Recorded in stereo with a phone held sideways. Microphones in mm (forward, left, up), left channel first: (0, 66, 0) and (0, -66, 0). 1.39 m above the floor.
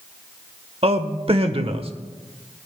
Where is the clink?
I don't hear a clink.